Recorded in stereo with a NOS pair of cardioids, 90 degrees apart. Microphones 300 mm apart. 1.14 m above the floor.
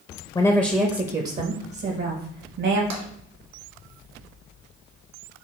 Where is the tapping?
60° right, 1.5 m.